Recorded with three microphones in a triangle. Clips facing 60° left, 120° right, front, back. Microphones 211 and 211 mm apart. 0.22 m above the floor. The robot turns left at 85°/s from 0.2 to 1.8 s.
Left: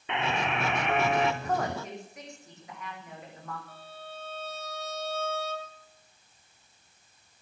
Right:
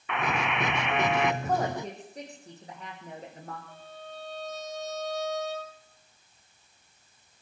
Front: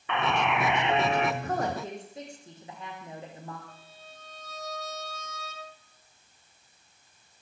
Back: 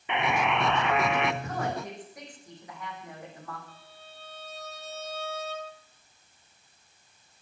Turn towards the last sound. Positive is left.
turn(degrees=-45)